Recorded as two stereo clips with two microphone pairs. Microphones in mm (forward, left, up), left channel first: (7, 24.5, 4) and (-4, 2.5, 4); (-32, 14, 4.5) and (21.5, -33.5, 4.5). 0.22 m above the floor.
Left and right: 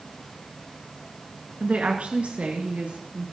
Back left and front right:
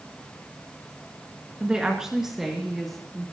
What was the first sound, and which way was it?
A woman speaking, 120° right.